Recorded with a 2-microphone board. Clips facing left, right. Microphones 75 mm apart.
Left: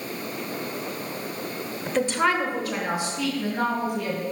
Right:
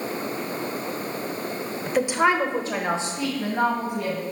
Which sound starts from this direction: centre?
A woman speaking, at 1.9 s.